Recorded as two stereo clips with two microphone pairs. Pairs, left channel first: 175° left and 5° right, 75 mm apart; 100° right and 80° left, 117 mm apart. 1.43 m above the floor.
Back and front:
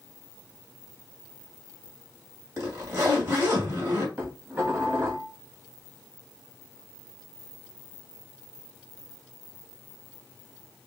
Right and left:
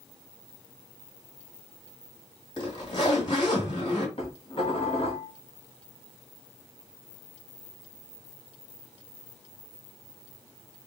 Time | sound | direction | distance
2.6 | a zipper | 55° right | 2.5 m
4.2 | dishes clattering | 65° right | 2 m